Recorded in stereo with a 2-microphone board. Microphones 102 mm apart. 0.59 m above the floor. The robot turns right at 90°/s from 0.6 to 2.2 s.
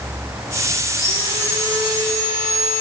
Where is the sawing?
25° left, 9.5 m; by 2.8 s 145° left, 9.5 m.